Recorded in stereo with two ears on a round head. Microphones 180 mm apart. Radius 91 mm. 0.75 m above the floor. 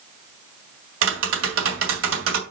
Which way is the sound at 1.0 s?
60° right (ahead or behind).